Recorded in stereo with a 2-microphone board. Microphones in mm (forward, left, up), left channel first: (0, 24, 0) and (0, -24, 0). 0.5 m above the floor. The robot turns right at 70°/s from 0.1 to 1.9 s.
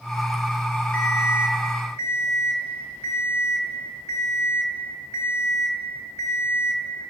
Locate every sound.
0.9 s an alarm clock: 30° left, 1.0 m; by 7.1 s 95° left, 1.0 m